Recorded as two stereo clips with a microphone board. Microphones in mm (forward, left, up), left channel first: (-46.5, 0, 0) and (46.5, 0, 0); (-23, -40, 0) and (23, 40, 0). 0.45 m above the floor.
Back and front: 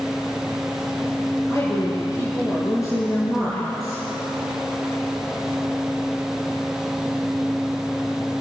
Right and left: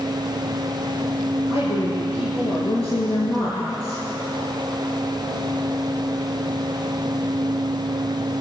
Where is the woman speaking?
125° right, 7 m.